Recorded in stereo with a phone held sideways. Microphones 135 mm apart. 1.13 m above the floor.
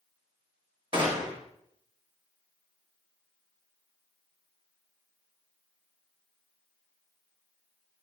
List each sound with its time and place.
0.9 s a gunshot: 35° right (ahead or behind), 1.7 m